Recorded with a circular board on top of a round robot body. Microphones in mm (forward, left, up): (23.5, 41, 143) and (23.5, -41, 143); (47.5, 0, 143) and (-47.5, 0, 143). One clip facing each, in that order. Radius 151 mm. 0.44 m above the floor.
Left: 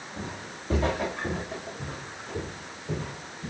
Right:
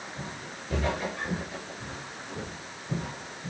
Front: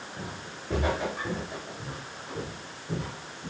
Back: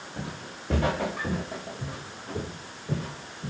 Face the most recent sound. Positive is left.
turn(degrees=130)